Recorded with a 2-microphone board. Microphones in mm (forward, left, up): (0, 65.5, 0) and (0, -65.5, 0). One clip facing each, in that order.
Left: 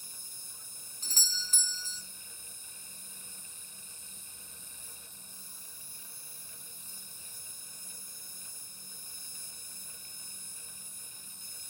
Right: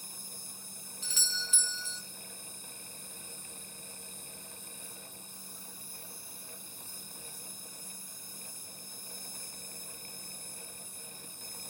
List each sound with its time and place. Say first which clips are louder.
0.0 s an insect: right 7 dB; 65° right (ahead or behind), 3 m
1.0 s a doorbell: right 3 dB; 40° left (ahead or behind), 0.7 m